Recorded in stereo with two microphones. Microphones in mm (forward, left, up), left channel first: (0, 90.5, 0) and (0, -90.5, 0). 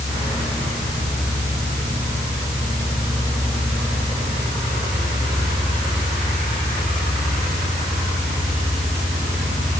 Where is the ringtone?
I don't hear a ringtone.